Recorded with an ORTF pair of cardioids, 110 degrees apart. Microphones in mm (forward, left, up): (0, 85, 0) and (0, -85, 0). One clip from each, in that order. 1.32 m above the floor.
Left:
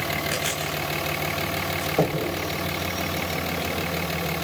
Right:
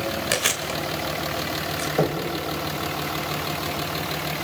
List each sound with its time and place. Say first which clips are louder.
0.3 s chewing: right 3 dB; 55° right, 3 m
2.0 s knocking: even; 5° right, 4.5 m